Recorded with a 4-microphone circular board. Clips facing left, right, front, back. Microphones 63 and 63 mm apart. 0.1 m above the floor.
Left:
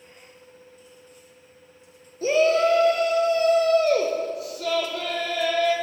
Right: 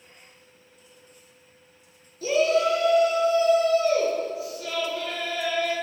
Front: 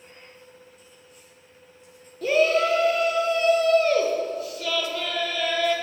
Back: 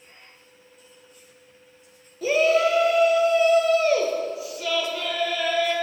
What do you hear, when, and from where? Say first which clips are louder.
2.2 s a shout: left 2 dB, back 1 dB; 95° left, 1.3 m